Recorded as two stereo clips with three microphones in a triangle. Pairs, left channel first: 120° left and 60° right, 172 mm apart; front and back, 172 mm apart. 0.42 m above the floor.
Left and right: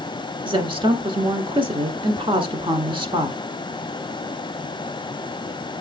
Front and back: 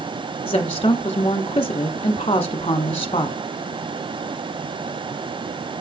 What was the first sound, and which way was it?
A woman speaking, 25° right.